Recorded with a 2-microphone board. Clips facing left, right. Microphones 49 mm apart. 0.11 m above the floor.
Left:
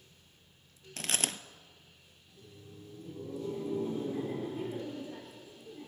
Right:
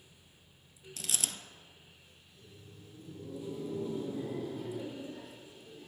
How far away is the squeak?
I don't hear a squeak.